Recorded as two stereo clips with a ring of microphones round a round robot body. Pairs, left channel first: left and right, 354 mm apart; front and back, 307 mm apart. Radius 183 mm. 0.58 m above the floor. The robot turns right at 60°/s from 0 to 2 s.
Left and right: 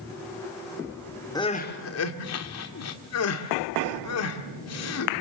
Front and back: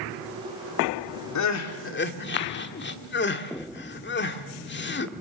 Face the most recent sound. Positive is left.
turn(degrees=50)